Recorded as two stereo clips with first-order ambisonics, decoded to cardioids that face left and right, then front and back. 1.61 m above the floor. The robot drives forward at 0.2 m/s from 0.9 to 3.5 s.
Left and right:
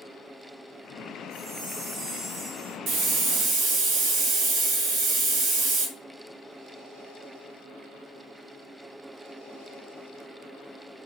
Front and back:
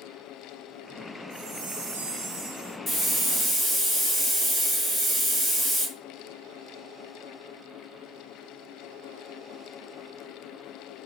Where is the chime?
165° right, 1.2 m.